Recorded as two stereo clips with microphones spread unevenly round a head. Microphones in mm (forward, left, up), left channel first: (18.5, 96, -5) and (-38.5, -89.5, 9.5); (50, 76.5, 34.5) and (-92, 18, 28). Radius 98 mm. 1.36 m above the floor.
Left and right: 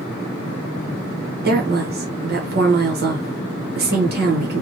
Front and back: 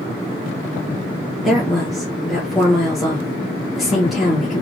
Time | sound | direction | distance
1.4 | a woman speaking | 70° right | 1.1 m